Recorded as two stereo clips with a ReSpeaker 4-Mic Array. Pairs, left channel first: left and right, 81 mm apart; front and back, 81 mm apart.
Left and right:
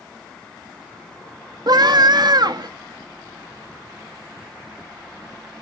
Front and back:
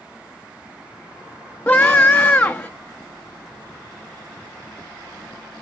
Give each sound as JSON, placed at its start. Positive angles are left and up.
{"t": 1.7, "sound": "a scream", "azimuth_deg": -75, "distance_m": 0.8}